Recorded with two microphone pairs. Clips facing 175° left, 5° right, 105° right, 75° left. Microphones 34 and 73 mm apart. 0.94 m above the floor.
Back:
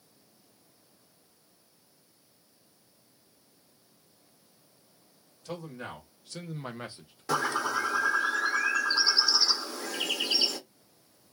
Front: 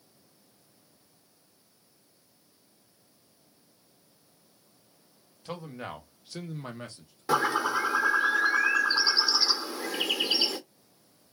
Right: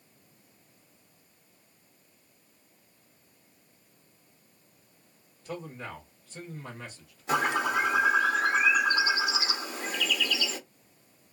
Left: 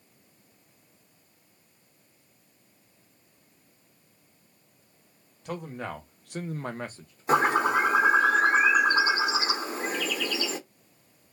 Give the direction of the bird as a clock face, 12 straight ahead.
10 o'clock.